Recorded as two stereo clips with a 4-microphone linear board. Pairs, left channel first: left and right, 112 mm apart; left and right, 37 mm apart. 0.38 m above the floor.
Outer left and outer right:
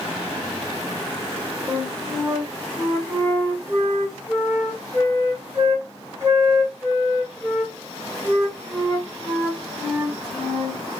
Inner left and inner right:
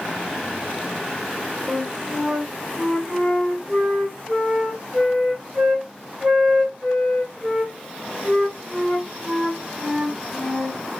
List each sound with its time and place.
1.7 s a flute: 25° right (ahead or behind), 3 m